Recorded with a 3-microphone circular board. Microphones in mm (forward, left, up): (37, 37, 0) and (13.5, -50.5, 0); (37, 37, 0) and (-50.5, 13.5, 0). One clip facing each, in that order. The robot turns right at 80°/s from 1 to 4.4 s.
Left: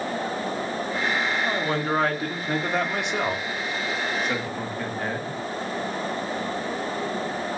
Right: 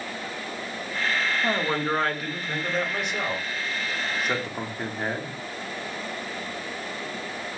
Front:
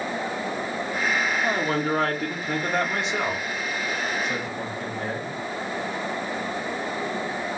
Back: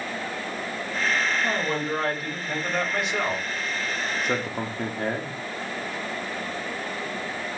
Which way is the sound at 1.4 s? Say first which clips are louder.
Even, front 2 dB; 50° right.